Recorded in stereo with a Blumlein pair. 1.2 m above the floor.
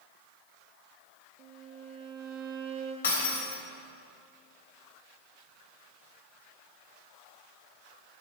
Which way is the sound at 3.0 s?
65° left.